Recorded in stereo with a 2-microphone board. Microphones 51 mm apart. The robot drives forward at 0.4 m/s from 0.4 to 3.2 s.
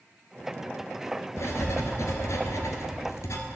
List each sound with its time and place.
1.4 s writing: 75° left (ahead or behind), 1.4 m